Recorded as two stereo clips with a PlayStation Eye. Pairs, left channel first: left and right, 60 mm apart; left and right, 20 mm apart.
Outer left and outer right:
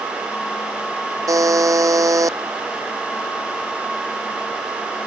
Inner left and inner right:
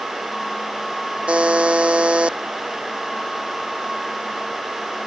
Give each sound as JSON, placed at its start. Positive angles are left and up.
{"t": 1.3, "sound": "a buzzer", "side_deg": -70}